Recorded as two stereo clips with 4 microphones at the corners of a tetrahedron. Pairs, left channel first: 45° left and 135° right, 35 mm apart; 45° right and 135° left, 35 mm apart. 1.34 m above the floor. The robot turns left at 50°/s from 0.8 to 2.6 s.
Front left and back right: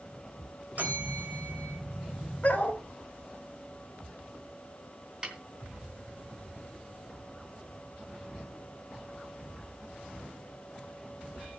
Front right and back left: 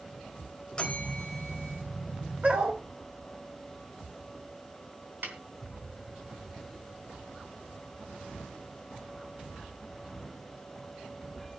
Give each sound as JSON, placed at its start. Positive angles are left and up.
{"t": 0.8, "sound": "a bell", "azimuth_deg": -105, "distance_m": 3.5}
{"t": 2.4, "sound": "a dog barking", "azimuth_deg": 95, "distance_m": 3.5}
{"t": 5.2, "sound": "a snare drum", "azimuth_deg": 160, "distance_m": 3.5}